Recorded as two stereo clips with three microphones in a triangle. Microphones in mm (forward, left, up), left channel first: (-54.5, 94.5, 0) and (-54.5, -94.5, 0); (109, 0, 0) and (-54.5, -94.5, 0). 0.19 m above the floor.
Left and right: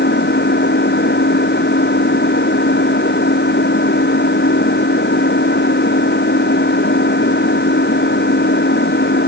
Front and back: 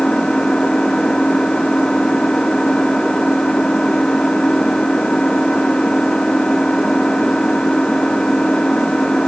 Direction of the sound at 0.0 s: 115° left.